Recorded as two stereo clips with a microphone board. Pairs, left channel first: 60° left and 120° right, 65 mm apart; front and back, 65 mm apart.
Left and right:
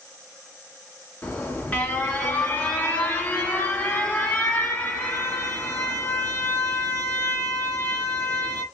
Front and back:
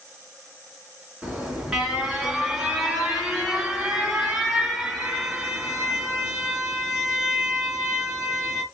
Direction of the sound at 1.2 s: 110° left.